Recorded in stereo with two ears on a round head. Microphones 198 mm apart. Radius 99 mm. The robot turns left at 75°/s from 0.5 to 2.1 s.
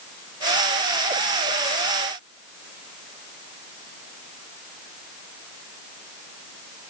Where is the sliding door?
I don't hear a sliding door.